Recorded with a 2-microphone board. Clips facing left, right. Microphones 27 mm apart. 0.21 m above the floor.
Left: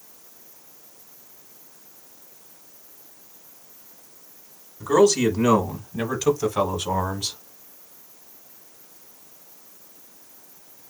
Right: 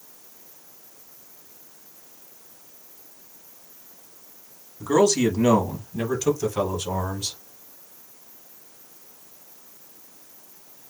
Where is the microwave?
I don't hear a microwave.